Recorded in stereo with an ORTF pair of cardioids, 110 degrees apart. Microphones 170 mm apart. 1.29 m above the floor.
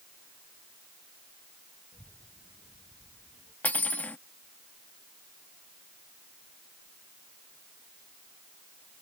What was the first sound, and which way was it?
A child speaking, 5° left.